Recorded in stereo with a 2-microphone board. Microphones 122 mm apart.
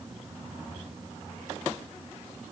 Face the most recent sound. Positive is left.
No sound to turn to.